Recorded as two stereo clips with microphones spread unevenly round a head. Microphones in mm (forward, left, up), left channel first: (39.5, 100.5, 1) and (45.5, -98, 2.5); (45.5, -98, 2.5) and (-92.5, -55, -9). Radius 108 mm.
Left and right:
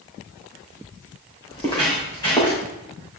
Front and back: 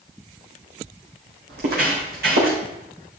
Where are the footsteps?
165° left, 4 m.